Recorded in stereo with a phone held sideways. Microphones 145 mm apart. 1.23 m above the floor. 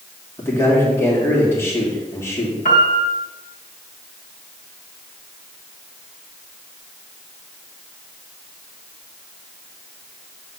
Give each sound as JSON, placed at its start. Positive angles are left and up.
{"t": 0.4, "sound": "a man speaking", "side_deg": 15, "distance_m": 3.0}
{"t": 2.6, "sound": "a piano", "side_deg": 65, "distance_m": 2.5}